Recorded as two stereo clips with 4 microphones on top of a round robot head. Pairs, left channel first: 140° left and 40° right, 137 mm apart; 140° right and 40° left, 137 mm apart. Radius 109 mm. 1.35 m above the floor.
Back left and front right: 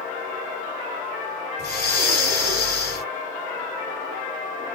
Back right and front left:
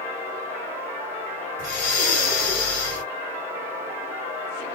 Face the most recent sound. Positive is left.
turn(degrees=-150)